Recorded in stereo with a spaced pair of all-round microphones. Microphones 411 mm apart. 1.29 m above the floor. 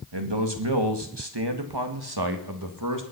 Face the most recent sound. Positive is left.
turn(degrees=-50)  # may be behind; listen again after turning